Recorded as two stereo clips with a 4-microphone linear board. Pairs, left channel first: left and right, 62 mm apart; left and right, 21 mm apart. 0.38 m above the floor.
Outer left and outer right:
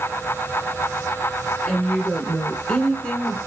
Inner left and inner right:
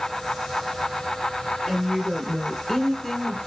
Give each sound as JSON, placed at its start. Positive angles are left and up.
{"t": 1.6, "sound": "a woman speaking", "side_deg": 5, "distance_m": 4.0}